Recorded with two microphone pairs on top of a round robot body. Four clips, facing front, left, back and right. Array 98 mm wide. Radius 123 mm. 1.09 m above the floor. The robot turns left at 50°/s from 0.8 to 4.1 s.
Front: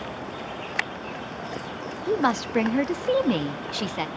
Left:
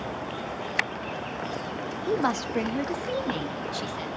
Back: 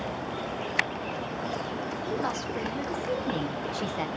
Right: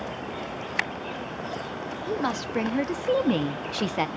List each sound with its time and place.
2.1 s a woman speaking: 25° left, 0.6 m; by 4.1 s 75° right, 0.6 m